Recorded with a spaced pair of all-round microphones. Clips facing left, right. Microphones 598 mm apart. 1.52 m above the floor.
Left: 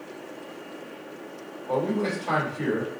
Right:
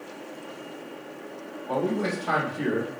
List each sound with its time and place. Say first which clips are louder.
1.7 s a man speaking: left 1 dB; 40° right (ahead or behind), 1.4 m